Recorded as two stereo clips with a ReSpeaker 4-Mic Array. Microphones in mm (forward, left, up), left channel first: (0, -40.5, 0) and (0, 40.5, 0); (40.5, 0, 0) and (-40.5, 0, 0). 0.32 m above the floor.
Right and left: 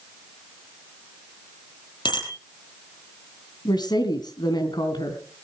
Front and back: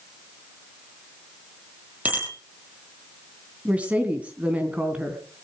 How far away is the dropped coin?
No dropped coin in this recording.